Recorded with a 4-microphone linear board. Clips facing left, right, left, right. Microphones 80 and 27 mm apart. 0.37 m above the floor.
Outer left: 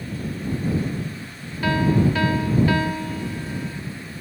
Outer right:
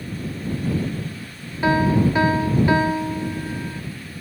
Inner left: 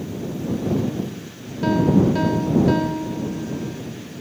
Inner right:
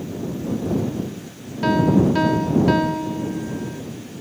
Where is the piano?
25° right (ahead or behind).